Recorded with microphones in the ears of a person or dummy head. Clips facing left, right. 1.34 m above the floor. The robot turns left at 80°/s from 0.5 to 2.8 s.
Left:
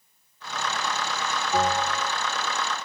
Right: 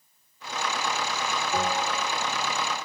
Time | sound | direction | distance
1.5 | a bell | 15° left | 2 m